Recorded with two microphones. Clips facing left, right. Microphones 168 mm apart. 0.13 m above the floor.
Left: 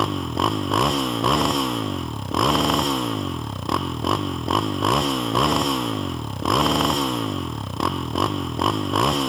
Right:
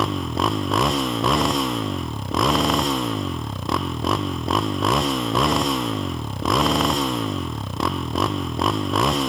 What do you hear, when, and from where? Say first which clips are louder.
0.0 s a motorcycle: even; centre (ahead or behind)